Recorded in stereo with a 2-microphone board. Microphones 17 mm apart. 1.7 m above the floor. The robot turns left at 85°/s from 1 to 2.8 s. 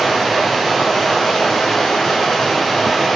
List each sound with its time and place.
0.0 s running water: 160° left, 1.6 m; by 3.1 s 10° left, 1.6 m